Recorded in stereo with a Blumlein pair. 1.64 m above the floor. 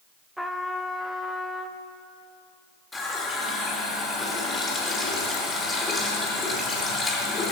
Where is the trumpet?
Straight ahead, 0.7 m.